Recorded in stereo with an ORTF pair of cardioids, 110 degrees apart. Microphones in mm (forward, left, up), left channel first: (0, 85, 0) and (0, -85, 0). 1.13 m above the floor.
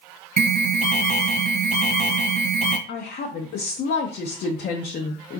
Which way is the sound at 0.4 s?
50° right.